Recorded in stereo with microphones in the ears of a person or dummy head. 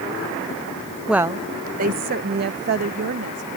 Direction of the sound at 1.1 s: Centre (ahead or behind).